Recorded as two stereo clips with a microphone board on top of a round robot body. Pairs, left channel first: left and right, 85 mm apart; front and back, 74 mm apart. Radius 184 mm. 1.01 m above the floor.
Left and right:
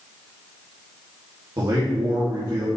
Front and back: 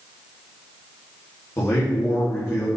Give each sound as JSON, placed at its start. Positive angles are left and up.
{"t": 1.6, "sound": "a man speaking", "azimuth_deg": -50, "distance_m": 3.0}